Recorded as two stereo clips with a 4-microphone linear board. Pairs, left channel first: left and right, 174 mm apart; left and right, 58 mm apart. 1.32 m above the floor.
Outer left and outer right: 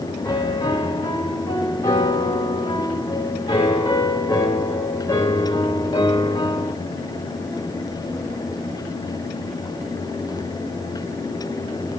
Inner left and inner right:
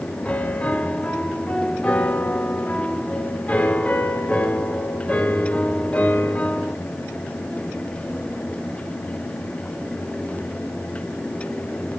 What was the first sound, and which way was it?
A piano, 20° left (ahead or behind).